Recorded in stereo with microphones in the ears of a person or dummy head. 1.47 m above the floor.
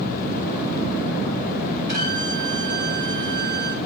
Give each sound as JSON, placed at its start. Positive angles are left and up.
{"t": 1.9, "sound": "a violin", "side_deg": -50, "distance_m": 1.3}